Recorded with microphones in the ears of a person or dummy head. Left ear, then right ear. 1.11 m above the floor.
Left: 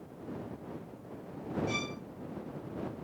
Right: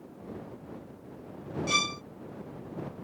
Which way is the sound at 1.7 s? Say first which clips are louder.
Right 12 dB; 40° right (ahead or behind).